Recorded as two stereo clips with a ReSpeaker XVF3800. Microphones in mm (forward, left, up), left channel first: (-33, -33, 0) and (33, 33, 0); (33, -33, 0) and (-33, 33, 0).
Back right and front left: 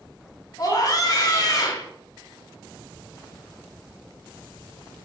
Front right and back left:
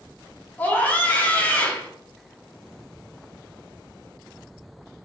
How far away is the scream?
About 1.1 m.